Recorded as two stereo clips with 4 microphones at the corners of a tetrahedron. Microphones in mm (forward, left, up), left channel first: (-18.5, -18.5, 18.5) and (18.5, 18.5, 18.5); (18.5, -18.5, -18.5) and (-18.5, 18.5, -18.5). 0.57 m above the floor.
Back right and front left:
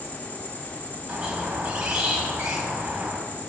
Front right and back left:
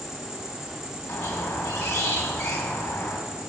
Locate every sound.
0.0 s an insect: 150° right, 1.8 m
1.1 s a squeak: 30° right, 1.9 m